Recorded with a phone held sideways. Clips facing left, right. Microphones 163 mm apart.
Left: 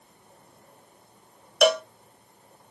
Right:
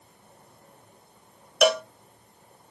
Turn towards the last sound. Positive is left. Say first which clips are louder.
# left 1 dB
turn(degrees=0)  # may be behind; listen again after turning